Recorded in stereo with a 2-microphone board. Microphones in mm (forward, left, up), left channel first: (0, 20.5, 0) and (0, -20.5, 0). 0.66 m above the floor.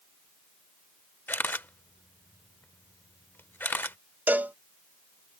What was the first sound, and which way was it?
A camera shutter, 60° left (ahead or behind).